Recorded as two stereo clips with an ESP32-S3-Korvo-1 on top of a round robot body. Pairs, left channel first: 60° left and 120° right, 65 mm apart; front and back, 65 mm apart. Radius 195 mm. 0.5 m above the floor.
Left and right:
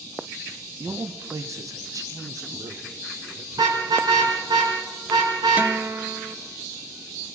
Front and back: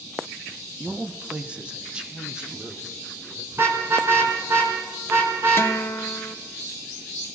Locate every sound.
0.8 s a man speaking: 125° right, 1.5 m; by 3.4 s 100° right, 3.5 m
3.5 s a car horn: 125° right, 3.5 m
5.6 s a guitar: 50° right, 1.0 m